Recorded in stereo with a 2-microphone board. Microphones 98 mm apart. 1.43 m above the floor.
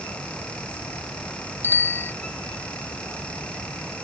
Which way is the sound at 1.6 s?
25° left (ahead or behind).